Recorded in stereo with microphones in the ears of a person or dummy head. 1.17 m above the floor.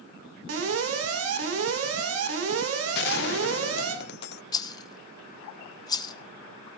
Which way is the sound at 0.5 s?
85° right.